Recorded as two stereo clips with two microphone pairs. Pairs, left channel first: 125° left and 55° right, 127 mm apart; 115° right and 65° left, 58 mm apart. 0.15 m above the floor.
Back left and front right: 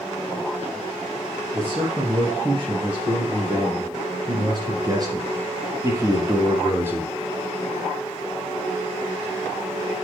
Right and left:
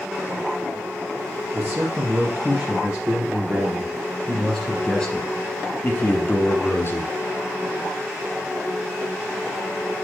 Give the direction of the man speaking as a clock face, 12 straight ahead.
12 o'clock.